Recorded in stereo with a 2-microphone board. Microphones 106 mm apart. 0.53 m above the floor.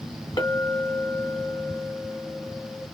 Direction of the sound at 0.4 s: 40° left (ahead or behind).